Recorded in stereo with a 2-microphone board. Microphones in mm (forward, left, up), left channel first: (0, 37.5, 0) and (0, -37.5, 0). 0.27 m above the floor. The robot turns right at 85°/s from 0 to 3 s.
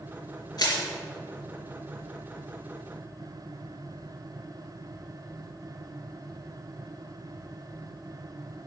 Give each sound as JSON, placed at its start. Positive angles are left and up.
{"t": 0.6, "sound": "crushing", "side_deg": 60, "distance_m": 3.5}